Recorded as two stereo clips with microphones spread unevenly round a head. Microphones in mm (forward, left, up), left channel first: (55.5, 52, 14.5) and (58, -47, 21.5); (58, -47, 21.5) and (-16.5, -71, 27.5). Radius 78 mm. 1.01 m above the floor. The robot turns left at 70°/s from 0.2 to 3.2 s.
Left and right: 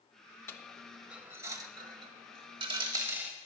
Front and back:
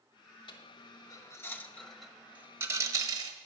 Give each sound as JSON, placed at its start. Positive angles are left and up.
{"t": 0.5, "sound": "a dropped coin", "azimuth_deg": 30, "distance_m": 1.1}